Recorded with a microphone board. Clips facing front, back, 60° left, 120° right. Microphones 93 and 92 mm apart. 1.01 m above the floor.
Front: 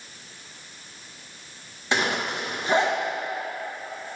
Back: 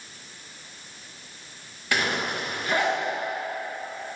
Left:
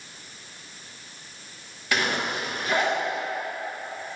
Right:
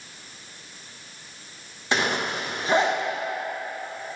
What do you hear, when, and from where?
1.9 s a zipper: 60° right, 0.9 m